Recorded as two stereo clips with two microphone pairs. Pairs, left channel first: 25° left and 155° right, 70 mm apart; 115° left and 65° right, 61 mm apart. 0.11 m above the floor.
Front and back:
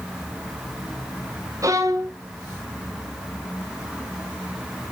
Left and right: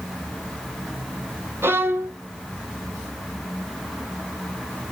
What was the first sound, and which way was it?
A violin, 115° right.